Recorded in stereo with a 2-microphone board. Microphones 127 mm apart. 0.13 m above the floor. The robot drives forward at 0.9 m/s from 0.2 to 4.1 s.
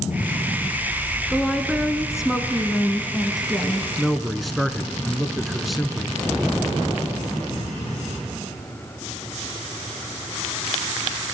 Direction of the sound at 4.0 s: Centre (ahead or behind).